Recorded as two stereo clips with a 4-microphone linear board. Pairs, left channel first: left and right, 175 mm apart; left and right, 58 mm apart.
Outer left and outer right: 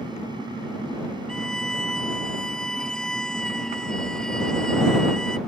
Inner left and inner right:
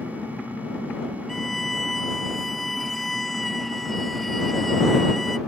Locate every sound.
1.3 s a violin: 5° left (ahead or behind)